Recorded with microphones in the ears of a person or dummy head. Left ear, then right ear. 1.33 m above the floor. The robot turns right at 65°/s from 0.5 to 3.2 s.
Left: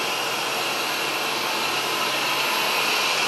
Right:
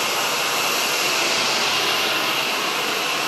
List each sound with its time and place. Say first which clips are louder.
0.0 s running water: right 3 dB; 115° right, 1.2 m; by 3.3 s 60° left, 1.2 m